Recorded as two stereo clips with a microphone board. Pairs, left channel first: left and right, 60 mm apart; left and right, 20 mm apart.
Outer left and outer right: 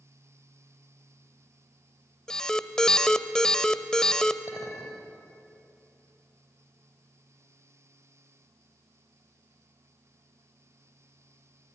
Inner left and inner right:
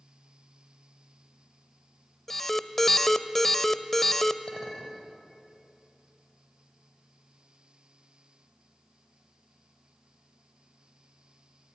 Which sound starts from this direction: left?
A clink, at 4.5 s.